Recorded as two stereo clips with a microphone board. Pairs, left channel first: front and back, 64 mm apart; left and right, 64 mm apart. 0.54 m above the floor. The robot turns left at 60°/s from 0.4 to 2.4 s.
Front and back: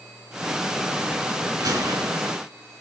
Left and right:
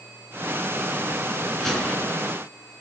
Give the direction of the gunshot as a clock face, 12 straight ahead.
6 o'clock.